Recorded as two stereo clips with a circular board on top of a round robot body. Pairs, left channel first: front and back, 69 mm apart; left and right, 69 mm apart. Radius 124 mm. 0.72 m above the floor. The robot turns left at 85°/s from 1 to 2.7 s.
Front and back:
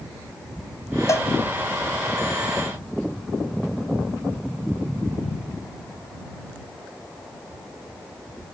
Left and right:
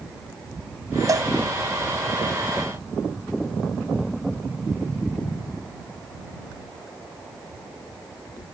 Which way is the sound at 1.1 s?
45° right.